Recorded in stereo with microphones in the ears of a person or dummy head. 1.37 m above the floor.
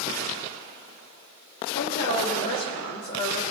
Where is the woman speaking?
55° left (ahead or behind), 3 m.